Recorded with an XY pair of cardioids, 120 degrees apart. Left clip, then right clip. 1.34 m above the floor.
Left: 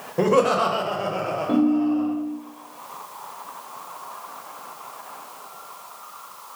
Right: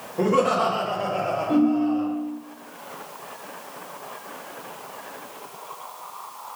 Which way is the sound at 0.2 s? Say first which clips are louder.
Left 2 dB; 40° left.